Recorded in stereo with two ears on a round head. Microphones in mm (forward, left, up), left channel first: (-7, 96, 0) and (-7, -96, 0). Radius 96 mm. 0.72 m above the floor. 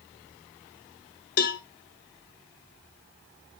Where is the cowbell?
45° left (ahead or behind), 0.8 m.